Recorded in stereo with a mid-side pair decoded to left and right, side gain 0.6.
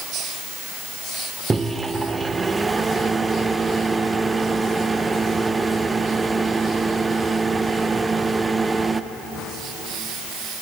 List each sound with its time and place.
1.5 s a microwave: 20° right, 0.5 m